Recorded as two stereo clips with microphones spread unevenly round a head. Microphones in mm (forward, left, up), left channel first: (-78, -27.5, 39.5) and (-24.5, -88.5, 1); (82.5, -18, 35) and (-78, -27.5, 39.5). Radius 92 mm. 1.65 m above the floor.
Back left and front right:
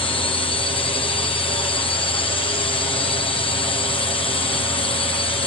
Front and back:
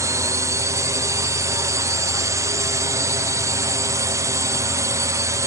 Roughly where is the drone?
Behind left.